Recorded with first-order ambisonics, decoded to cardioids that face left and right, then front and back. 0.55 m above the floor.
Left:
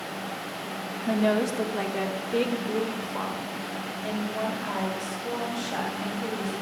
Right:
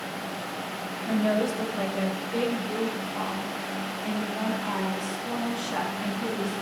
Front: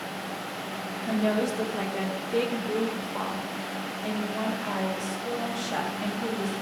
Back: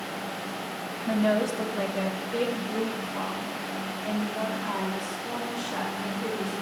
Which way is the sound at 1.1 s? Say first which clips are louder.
Left 1 dB, back 2 dB; 85° left.